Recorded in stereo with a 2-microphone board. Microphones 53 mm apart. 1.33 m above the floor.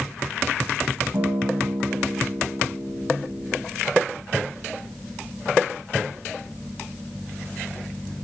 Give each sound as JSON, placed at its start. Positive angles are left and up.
{"t": 1.1, "sound": "a guitar", "side_deg": -60, "distance_m": 2.0}